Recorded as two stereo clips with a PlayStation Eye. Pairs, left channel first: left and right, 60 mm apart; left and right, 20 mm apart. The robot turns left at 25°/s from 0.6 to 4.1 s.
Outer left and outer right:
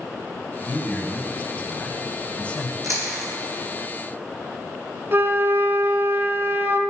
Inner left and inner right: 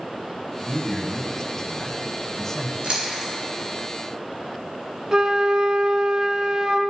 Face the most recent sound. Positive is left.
turn(degrees=-40)  # may be behind; listen again after turning